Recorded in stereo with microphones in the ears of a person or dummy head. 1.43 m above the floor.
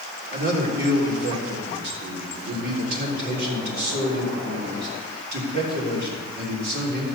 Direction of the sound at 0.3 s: 70° right (ahead or behind).